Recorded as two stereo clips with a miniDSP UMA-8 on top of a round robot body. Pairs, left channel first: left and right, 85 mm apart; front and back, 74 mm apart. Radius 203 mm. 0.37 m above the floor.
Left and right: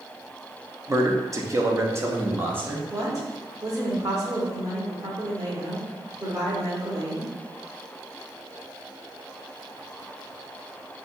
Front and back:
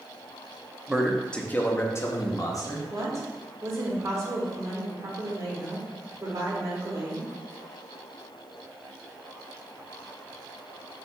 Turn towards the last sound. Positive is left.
turn(degrees=-135)